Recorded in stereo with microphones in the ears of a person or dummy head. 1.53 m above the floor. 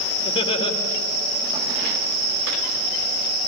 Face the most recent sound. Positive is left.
turn(degrees=35)  # may be behind; listen again after turning